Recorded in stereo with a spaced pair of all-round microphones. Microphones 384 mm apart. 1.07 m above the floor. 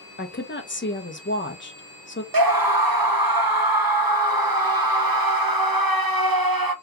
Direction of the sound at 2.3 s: 65° right (ahead or behind).